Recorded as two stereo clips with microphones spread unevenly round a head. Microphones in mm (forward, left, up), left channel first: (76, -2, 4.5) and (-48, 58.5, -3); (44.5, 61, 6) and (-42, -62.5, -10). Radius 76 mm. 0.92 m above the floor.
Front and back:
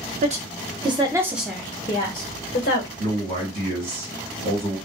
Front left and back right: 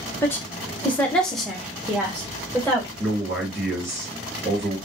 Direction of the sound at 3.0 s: 160° left.